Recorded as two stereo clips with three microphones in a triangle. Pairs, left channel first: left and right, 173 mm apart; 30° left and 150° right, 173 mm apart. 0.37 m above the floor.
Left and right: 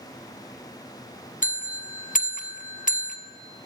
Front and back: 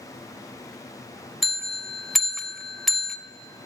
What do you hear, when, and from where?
1.4 s a bell: 120° left, 0.5 m